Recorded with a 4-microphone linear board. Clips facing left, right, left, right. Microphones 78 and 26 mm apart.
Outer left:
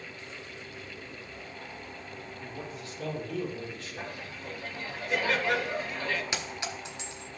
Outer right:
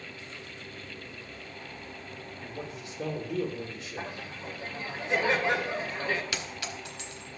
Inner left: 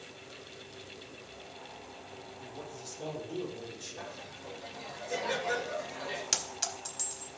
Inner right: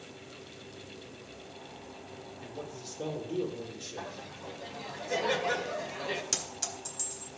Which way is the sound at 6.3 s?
25° left (ahead or behind).